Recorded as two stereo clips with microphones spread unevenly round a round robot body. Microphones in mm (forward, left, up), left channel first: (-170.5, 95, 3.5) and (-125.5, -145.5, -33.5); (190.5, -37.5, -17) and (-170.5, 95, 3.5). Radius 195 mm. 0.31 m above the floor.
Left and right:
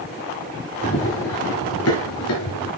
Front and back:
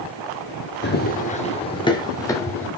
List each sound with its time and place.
0.8 s running footsteps: 45° left, 1.9 m; by 2.7 s 65° left, 3.5 m